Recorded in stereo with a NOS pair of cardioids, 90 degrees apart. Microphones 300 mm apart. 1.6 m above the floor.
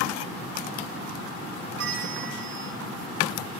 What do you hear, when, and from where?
1.8 s a bell: 50° right, 8 m